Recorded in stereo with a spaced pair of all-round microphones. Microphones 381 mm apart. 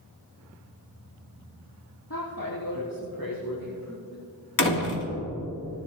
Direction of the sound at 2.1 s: 60° left (ahead or behind).